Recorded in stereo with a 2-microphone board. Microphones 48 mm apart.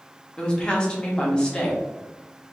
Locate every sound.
0.4 s a woman speaking: 20° left (ahead or behind), 0.9 m